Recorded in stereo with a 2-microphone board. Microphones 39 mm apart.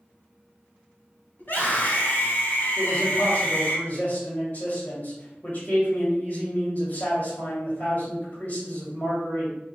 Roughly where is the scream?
Left.